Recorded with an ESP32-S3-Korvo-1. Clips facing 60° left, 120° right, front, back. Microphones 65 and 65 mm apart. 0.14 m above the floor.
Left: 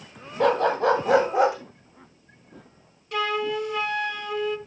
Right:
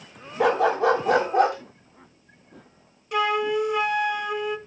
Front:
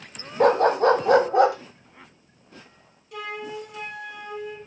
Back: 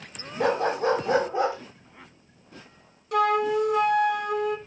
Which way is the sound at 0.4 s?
40° right.